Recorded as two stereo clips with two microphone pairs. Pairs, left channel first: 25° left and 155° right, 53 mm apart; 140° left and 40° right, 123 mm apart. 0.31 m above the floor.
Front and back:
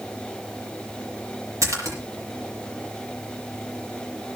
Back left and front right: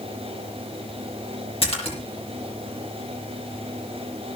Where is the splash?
Straight behind, 8 m.